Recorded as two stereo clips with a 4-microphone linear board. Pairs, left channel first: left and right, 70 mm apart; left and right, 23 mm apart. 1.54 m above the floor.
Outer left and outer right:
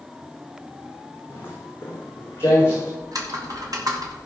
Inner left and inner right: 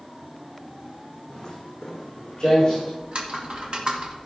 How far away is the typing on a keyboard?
About 2 m.